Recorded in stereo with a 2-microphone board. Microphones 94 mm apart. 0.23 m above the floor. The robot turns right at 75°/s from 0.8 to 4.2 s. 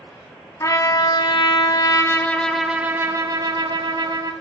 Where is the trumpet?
45° left, 0.6 m; by 4.3 s 60° right, 0.6 m.